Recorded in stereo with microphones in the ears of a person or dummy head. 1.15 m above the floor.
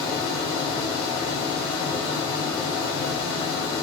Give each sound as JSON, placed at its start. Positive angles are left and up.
{"t": 0.0, "sound": "a fan", "side_deg": 20, "distance_m": 1.9}